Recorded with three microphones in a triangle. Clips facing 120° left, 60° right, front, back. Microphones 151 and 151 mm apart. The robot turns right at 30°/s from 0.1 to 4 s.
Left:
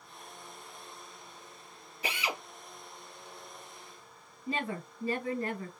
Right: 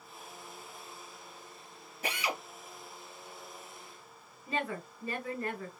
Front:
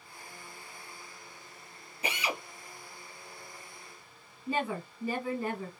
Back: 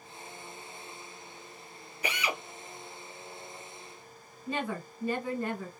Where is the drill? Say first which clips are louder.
Right 1 dB, back 1 dB; 50° right, 1.9 m; by 2.4 s 40° right, 1.9 m.